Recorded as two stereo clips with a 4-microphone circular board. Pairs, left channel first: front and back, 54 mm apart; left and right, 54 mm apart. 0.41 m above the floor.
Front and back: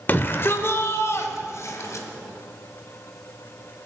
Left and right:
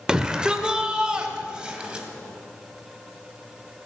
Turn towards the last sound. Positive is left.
turn(degrees=-20)